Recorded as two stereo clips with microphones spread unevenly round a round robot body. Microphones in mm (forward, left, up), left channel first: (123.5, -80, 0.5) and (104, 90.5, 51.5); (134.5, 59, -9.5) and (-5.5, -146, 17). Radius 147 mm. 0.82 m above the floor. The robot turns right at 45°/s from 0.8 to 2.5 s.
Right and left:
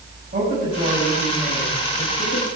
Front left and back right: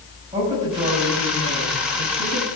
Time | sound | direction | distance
0.3 | a woman speaking | 160° left | 5.5 m